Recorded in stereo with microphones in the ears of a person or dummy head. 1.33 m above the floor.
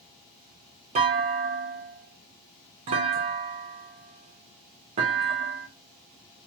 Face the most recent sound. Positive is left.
turn(degrees=-35)  # may be behind; listen again after turning